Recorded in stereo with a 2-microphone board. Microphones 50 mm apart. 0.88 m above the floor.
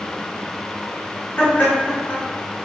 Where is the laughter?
35° left (ahead or behind), 1.4 m.